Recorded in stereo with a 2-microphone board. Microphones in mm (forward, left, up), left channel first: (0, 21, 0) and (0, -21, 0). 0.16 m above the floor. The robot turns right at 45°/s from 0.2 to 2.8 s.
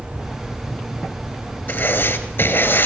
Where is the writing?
70° left, 3 m; by 2.9 s 120° left, 3 m.